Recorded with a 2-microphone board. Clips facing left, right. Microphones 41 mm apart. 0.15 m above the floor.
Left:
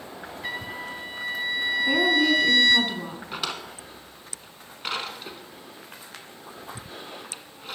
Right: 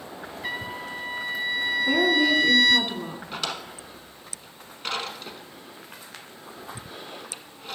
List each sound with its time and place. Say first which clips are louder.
0.4 s a trumpet: right 1 dB; 5° left (ahead or behind), 1.1 m
1.8 s a woman speaking: even; 5° left (ahead or behind), 1.1 m
3.3 s a drawer: even; 10° left (ahead or behind), 0.8 m